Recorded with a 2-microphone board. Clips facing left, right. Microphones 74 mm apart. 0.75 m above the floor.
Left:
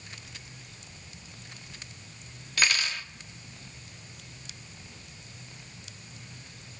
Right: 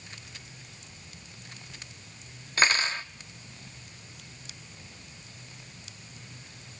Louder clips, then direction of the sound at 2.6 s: Right 3 dB; 35° right (ahead or behind).